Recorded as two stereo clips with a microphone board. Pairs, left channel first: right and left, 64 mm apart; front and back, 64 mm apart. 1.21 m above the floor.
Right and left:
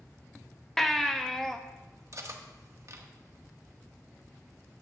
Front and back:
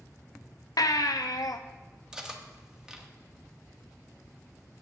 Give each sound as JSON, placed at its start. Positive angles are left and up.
{"t": 0.8, "sound": "a baby crying", "azimuth_deg": -5, "distance_m": 0.5}
{"t": 2.1, "sound": "cutlery clinking", "azimuth_deg": 105, "distance_m": 0.9}